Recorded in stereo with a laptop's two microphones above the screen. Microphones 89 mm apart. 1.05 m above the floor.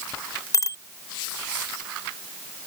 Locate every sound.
0.5 s a bicycle bell: 40° left (ahead or behind)